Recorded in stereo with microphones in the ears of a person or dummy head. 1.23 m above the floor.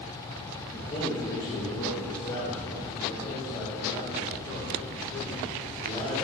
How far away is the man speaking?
About 1.1 m.